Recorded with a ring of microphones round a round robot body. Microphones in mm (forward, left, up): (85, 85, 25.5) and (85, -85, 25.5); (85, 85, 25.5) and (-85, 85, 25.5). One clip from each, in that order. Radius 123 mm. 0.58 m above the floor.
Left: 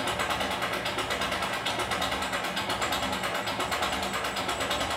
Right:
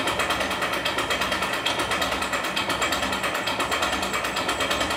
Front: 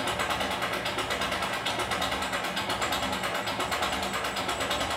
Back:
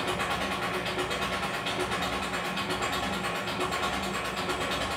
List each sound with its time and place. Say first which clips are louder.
0.0 s an engine running: right 5 dB, front 1 dB; 35° right, 0.9 m